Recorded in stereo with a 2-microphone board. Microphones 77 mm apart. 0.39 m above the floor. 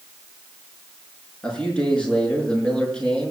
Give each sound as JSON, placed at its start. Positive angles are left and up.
{"t": 1.4, "sound": "a man speaking", "side_deg": 15, "distance_m": 5.5}